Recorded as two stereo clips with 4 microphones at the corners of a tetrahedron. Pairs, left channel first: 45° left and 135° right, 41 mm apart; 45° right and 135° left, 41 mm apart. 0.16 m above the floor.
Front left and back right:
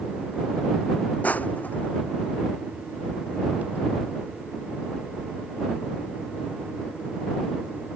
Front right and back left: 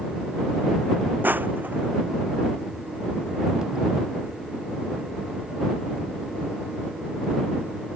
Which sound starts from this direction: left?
Crushing, at 1.2 s.